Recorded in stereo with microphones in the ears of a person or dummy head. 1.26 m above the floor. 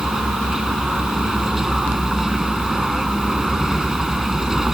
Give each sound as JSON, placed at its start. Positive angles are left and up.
{"t": 0.0, "sound": "a vehicle", "side_deg": 0}